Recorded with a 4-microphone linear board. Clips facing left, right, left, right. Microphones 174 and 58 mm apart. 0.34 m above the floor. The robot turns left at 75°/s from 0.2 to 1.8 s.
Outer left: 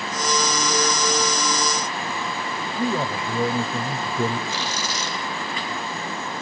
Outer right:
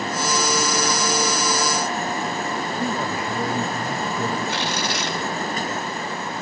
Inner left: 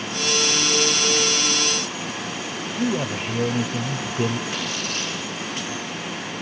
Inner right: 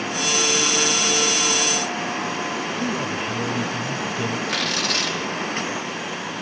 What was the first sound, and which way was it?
A man speaking, 25° left (ahead or behind).